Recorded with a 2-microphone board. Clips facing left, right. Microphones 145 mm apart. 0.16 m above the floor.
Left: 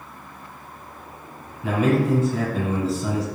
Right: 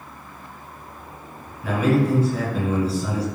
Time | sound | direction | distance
1.6 | a man speaking | 25° left (ahead or behind) | 1.4 m